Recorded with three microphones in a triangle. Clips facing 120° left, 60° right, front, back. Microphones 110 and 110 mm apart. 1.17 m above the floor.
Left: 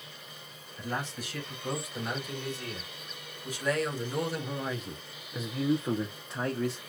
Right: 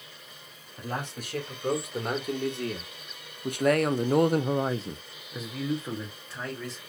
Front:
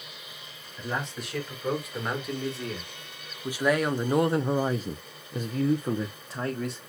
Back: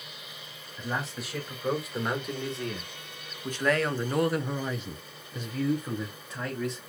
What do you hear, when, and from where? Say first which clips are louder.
0.8 s a man speaking: right 1 dB, front 1 dB; 95° right, 2.5 m; by 6.9 s 60° left, 1.2 m